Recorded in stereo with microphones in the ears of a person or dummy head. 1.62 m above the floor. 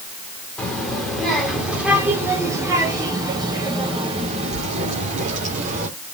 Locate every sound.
0.6 s a child speaking: 5° left (ahead or behind), 3.5 m; by 5.9 s 45° right (ahead or behind), 4 m